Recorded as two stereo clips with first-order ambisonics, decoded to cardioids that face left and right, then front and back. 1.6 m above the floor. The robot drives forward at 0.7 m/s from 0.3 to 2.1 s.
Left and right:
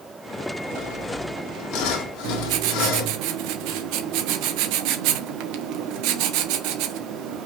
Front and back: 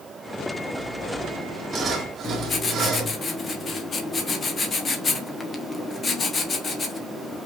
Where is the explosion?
No explosion in this recording.